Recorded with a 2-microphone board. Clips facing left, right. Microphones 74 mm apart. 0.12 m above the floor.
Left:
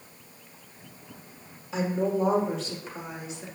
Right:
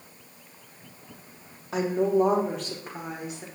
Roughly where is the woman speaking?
Right.